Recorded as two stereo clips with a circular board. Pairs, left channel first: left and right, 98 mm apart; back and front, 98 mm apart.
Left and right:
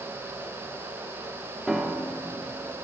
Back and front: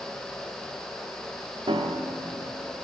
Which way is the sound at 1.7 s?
10° right.